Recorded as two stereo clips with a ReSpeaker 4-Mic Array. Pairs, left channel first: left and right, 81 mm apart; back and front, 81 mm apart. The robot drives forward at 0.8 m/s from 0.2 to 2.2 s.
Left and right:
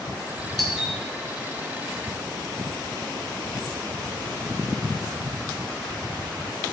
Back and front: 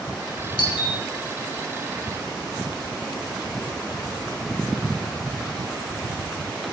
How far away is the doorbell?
About 4.5 m.